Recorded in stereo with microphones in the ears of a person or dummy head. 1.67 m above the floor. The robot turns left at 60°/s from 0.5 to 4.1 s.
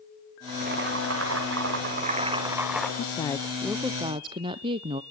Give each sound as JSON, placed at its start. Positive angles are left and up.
{"t": 0.5, "sound": "boiling", "azimuth_deg": -40, "distance_m": 5.0}
{"t": 3.0, "sound": "a woman speaking", "azimuth_deg": 40, "distance_m": 0.6}